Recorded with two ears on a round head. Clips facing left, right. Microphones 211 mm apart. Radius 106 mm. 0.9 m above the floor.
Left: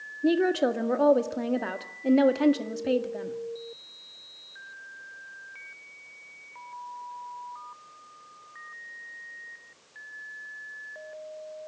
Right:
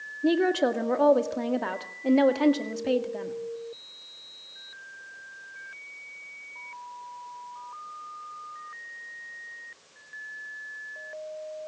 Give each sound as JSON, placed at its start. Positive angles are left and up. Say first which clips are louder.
{"t": 0.2, "sound": "a woman speaking", "louder": "even", "side_deg": 5, "distance_m": 1.8}